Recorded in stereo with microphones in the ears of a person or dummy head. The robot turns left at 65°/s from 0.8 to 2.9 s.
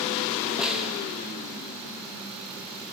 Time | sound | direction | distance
0.6 | a snare drum | 5° right (ahead or behind) | 1.1 m